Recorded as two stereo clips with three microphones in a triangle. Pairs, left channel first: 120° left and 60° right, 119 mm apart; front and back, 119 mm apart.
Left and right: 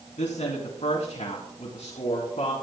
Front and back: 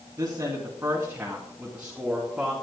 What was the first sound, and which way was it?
A woman speaking, 120° left.